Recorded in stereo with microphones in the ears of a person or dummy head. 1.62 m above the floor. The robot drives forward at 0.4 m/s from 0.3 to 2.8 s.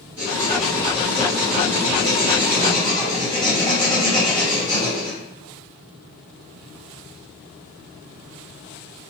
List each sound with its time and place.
0.2 s writing: 20° right (ahead or behind), 1.3 m; by 5.2 s 15° right (ahead or behind), 1.5 m